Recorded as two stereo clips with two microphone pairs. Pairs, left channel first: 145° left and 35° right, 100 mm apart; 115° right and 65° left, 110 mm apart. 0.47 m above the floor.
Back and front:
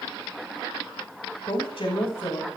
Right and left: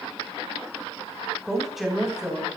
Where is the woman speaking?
155° left, 4 m; by 2.5 s 145° left, 3.5 m.